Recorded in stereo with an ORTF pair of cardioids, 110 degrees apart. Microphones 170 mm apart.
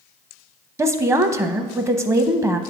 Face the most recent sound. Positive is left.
turn(degrees=-15)